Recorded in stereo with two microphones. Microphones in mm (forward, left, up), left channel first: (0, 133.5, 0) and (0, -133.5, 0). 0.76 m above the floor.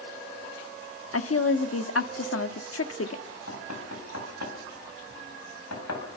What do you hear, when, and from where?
1.1 s a woman speaking: 60° left (ahead or behind), 1.4 m
3.3 s knocking: 75° left (ahead or behind), 4.5 m